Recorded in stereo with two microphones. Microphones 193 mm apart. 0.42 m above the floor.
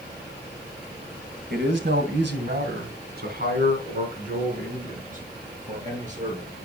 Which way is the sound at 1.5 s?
65° right (ahead or behind).